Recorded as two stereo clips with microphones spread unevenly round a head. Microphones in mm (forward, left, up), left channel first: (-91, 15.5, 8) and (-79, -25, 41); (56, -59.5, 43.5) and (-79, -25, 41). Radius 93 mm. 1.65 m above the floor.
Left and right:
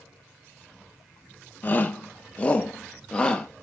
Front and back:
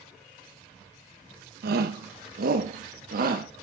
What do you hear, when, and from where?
1.6 s a shout: 170° left, 1.3 m; by 3.5 s 175° right, 2 m